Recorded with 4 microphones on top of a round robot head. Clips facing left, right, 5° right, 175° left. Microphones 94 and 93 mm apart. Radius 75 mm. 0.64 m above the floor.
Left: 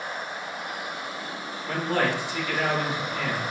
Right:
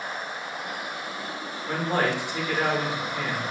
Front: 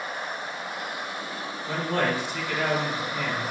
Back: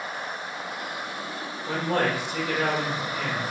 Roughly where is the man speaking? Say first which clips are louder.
Even, back 1 dB; behind.